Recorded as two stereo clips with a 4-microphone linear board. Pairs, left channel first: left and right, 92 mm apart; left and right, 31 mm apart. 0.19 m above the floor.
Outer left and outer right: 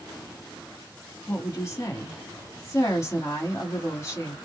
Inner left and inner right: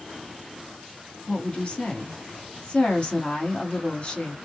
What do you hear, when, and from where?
1.3 s a woman speaking: 35° left (ahead or behind), 1.3 m